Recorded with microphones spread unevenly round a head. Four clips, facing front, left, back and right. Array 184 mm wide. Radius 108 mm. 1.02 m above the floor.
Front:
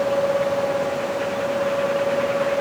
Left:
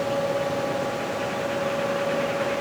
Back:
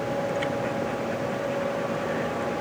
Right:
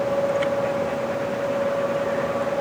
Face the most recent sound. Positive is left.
No sound to turn to.